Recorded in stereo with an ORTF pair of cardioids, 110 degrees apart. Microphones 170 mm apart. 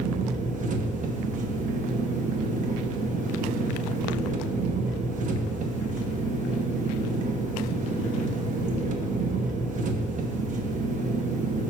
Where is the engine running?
50° right, 1.4 m.